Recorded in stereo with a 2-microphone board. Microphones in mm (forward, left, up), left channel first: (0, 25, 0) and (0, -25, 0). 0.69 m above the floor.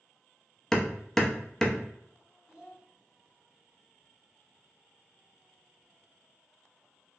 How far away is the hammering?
About 0.6 m.